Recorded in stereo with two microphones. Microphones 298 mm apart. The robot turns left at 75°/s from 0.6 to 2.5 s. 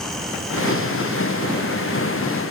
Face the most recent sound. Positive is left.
No sound to turn to.